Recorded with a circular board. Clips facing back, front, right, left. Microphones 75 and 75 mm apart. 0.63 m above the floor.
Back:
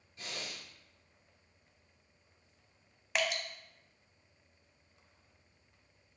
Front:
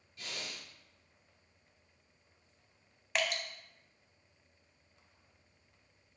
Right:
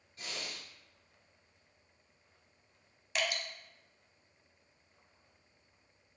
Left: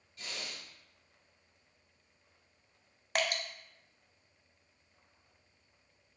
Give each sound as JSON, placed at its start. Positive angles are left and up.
{"t": 0.2, "sound": "breathing", "azimuth_deg": -130, "distance_m": 1.6}
{"t": 3.1, "sound": "dripping", "azimuth_deg": 95, "distance_m": 0.6}